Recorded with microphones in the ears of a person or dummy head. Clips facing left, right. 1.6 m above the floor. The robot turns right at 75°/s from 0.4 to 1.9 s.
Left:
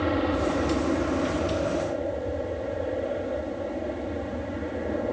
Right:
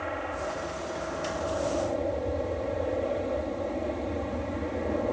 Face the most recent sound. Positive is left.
turn(degrees=175)